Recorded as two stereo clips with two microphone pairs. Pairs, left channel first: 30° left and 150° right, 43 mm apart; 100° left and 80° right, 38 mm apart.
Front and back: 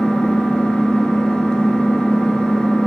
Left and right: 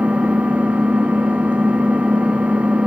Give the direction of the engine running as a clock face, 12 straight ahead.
1 o'clock.